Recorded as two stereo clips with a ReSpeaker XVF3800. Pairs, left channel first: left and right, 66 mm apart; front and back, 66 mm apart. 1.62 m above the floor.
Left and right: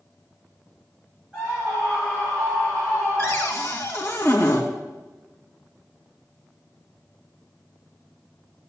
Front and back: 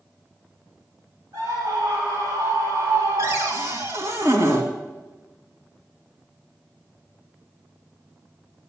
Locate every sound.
1.3 s a scream: 165° right, 6 m; by 3.8 s straight behind, 8 m
3.2 s a cupboard door: 140° left, 2.5 m